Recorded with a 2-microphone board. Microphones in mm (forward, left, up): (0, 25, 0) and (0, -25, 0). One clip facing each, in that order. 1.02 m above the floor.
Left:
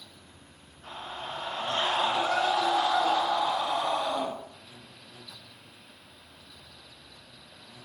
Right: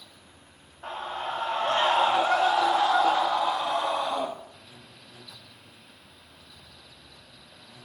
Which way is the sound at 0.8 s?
60° right (ahead or behind).